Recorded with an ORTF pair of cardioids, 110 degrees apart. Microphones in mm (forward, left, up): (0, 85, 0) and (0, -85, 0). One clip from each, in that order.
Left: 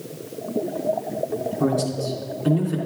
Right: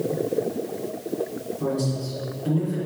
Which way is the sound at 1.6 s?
50° left.